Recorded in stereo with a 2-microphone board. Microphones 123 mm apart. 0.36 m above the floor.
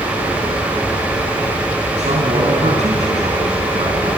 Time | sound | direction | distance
2.0 | a man speaking | 65° right (ahead or behind) | 3.5 m